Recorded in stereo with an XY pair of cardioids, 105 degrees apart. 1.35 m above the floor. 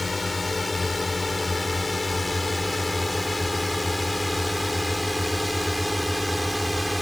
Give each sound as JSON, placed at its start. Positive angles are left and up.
{"t": 0.0, "sound": "a drone", "azimuth_deg": 15}